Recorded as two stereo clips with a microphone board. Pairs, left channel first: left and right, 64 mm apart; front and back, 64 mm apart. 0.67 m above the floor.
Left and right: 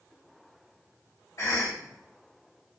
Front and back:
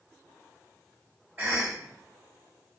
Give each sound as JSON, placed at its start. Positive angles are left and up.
{"t": 1.4, "sound": "a cough", "azimuth_deg": 115, "distance_m": 2.0}